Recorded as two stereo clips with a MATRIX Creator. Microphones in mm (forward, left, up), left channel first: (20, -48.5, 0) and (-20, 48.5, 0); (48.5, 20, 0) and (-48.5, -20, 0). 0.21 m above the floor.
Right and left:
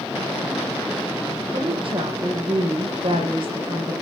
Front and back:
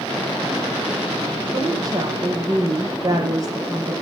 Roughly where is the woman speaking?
Behind left.